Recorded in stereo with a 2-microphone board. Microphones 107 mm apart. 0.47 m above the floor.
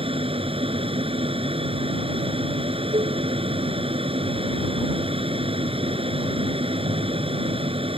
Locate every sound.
0.0 s an aircraft: 55° right (ahead or behind)
2.9 s dishes clattering: 55° right (ahead or behind)